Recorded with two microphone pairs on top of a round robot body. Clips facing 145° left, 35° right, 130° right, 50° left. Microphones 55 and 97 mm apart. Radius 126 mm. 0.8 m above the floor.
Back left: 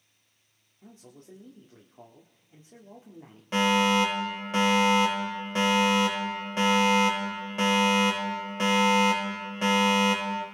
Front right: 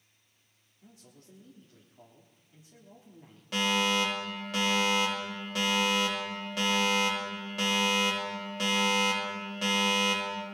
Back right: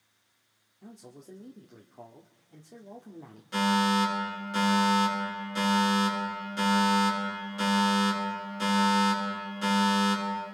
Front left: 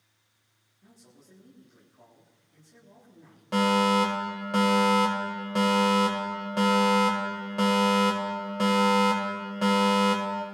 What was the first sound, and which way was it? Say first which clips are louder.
A man speaking: back left 6 dB, back right 9 dB; 160° right.